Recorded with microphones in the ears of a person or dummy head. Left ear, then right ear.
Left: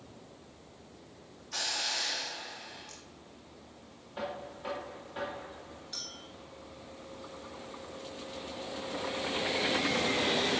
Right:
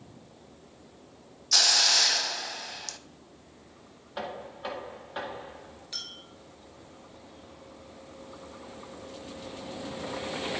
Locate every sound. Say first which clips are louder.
1.5 s a hiss: right 12 dB; 75° right (ahead or behind), 0.7 m
4.2 s knocking: right 2 dB; 30° right (ahead or behind), 2 m
5.9 s a clink: right 3 dB; 15° right (ahead or behind), 0.6 m